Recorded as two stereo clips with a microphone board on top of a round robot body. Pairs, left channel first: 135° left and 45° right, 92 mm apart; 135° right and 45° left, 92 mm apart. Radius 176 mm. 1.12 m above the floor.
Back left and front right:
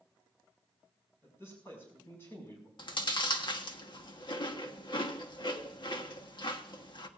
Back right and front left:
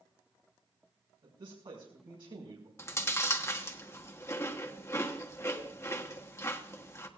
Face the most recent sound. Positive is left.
turn(degrees=165)